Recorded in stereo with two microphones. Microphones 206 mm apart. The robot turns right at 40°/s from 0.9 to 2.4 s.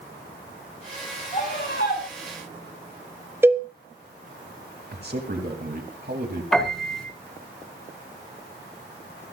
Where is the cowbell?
10° right (ahead or behind), 1.0 m.